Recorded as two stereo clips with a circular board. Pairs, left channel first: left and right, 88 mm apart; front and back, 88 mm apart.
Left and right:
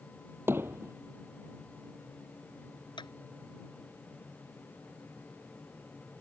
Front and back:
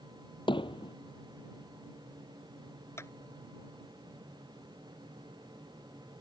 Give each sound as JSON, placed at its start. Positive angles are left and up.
{"t": 0.5, "sound": "hammering", "azimuth_deg": -25}
{"t": 3.0, "sound": "a clap", "azimuth_deg": 60}